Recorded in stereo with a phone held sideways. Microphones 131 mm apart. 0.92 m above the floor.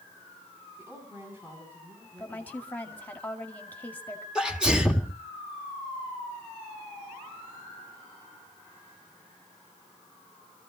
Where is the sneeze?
5° right (ahead or behind), 2 m.